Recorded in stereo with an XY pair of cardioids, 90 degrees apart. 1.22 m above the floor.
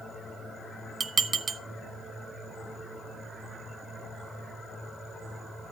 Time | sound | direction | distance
1.0 | dishes clattering | 35° right | 1.2 m